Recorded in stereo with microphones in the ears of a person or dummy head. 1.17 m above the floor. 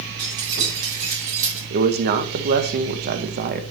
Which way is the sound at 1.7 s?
45° right (ahead or behind).